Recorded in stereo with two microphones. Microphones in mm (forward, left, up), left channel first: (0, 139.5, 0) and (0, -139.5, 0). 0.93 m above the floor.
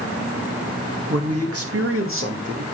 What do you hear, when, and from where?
1.1 s a man speaking: 60° right (ahead or behind), 1.7 m; by 2.6 s 40° right (ahead or behind), 1.7 m